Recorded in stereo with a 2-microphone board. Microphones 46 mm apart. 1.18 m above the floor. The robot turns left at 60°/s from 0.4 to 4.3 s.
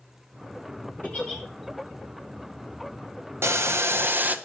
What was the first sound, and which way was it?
A giggle, 40° left (ahead or behind).